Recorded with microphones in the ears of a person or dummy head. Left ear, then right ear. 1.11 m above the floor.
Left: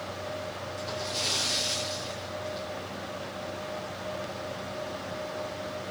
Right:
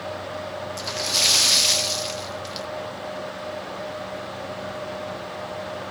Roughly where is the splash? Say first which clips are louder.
Right 10 dB; right.